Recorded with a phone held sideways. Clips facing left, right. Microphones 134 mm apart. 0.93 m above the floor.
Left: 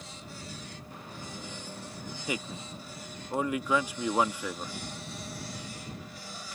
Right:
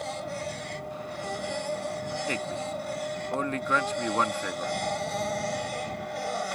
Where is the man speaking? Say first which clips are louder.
Right 5 dB; 10° left (ahead or behind).